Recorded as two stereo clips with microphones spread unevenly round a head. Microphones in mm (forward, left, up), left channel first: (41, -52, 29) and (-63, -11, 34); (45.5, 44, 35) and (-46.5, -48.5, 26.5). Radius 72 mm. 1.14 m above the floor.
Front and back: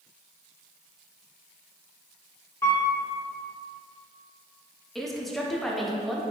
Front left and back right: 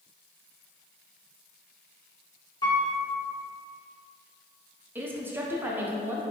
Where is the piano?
35° left, 0.7 m.